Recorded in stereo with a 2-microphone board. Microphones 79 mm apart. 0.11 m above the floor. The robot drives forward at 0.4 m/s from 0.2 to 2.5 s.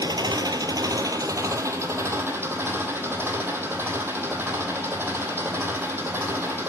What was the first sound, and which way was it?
An engine running, 65° right (ahead or behind).